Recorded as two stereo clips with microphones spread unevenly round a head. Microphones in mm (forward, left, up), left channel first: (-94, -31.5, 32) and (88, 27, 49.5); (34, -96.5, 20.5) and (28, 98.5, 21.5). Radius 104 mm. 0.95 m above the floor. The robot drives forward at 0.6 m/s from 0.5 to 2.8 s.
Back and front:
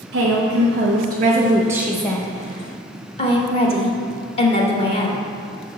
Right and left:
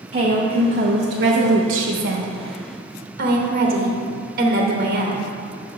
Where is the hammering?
No hammering in this recording.